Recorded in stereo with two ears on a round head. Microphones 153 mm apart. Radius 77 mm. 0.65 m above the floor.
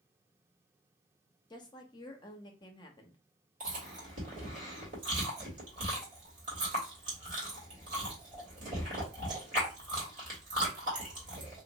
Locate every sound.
1.5 s a woman speaking: 25° left (ahead or behind), 0.8 m
3.6 s chewing: 50° right (ahead or behind), 2.0 m